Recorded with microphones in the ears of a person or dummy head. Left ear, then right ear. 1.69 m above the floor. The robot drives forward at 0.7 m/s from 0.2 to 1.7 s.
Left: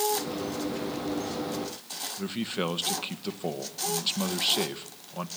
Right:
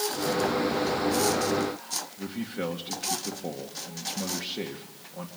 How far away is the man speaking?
About 1.4 m.